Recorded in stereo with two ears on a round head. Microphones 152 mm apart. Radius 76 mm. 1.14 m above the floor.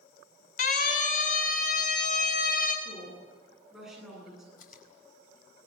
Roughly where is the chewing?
Left.